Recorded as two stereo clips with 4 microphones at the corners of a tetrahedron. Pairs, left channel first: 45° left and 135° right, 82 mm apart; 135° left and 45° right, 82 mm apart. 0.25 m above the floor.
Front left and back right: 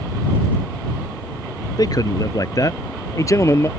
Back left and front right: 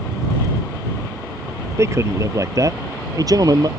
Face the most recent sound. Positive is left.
turn(degrees=-10)